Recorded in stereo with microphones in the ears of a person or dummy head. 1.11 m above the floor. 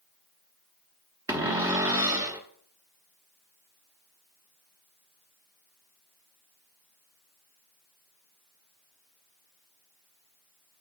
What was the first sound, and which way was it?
A cupboard door, 15° right (ahead or behind).